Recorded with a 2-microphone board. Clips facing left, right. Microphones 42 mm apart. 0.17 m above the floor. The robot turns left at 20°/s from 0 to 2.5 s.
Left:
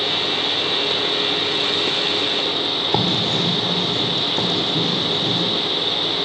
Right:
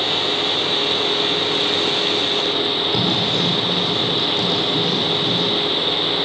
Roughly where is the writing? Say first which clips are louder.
Even; left.